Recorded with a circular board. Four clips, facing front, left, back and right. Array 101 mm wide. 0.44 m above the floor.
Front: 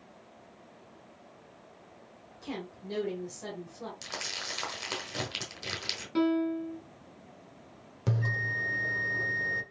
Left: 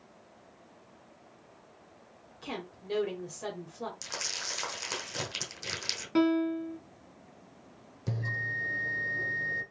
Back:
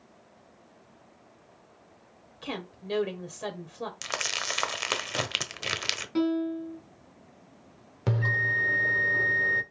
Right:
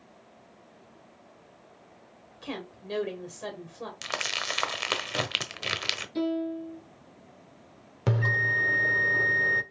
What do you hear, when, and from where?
2.4 s a woman speaking: 170° right, 1.4 m
4.0 s crumpling: 135° right, 0.8 m
6.2 s a piano: 90° left, 1.2 m
8.1 s a bell: 115° right, 0.6 m